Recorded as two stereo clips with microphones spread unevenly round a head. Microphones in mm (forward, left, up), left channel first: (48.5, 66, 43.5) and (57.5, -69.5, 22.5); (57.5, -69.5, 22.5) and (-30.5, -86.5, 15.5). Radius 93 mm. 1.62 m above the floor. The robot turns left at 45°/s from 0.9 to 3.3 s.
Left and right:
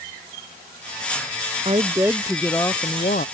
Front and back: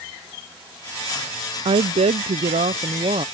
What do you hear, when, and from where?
1.6 s a woman speaking: 150° right; by 3.2 s 135° left